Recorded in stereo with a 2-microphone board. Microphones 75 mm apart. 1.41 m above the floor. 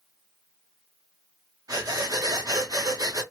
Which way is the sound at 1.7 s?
55° right (ahead or behind).